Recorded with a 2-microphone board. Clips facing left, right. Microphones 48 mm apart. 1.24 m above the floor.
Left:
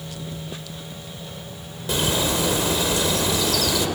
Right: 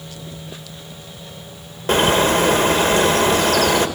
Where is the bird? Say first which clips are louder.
Right 8 dB; 50° right (ahead or behind), 1.4 m.